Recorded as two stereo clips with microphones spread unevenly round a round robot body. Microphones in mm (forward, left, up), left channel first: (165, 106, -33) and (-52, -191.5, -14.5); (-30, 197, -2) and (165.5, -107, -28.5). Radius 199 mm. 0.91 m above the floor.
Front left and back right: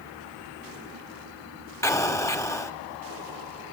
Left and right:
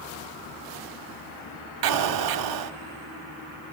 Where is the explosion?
30° right, 1.1 m.